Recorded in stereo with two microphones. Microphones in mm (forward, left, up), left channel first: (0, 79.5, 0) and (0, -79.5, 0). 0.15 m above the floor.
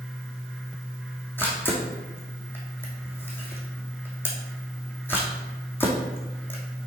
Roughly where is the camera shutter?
Centre.